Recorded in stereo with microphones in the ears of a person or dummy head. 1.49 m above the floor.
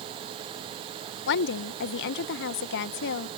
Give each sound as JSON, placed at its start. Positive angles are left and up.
{"t": 1.3, "sound": "a woman speaking", "side_deg": 55}